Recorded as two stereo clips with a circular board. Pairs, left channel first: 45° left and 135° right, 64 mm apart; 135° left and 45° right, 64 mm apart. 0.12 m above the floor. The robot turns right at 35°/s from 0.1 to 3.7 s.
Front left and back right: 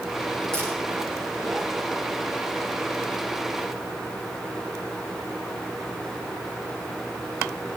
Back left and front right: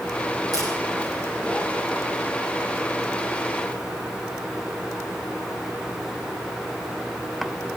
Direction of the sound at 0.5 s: 35° right.